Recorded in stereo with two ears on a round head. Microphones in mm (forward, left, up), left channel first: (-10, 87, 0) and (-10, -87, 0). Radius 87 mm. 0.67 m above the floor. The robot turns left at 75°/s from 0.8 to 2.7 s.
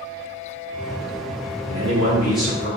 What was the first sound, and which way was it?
A man speaking, 125° right.